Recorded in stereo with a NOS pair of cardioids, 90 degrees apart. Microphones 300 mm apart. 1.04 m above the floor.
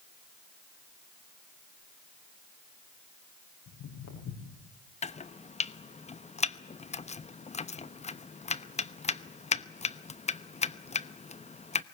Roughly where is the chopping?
Ahead.